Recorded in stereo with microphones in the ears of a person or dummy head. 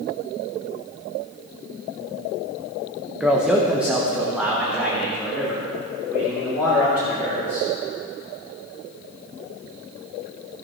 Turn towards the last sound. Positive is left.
turn(degrees=0)  # may be behind; listen again after turning